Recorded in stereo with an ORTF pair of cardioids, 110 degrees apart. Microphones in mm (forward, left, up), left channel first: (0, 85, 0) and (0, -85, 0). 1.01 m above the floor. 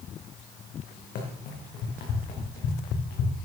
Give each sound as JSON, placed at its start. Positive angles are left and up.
{"t": 1.1, "sound": "running footsteps", "azimuth_deg": 65, "distance_m": 4.0}